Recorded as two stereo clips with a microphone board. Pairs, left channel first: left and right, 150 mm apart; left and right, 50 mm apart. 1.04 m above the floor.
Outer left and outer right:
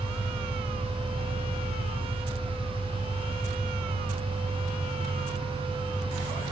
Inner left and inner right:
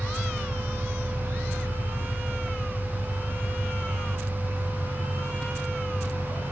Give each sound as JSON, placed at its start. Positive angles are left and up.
{"t": 0.0, "sound": "an engine running", "side_deg": 55, "distance_m": 2.5}